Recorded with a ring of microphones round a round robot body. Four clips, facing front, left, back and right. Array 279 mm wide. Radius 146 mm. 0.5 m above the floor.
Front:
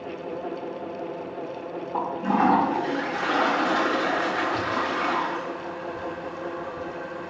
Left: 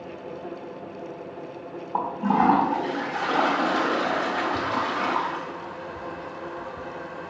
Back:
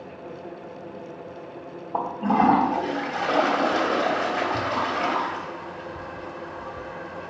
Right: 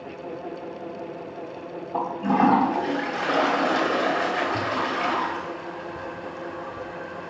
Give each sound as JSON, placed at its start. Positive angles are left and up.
{"t": 1.9, "sound": "a toilet flushing", "azimuth_deg": -140, "distance_m": 3.0}